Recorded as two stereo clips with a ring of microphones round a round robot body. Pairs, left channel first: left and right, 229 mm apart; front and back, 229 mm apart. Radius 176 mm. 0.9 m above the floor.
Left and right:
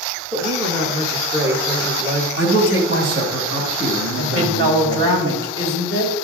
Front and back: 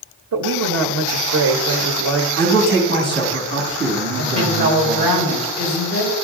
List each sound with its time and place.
0.3 s a woman speaking: 165° right, 0.8 m
2.4 s a man speaking: 135° right, 1.9 m
4.2 s a woman speaking: 60° right, 4 m